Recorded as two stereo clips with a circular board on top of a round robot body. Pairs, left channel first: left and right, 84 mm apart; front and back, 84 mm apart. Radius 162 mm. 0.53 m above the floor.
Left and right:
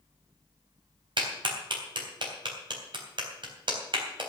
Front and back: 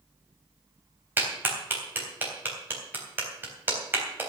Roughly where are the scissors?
No scissors in this recording.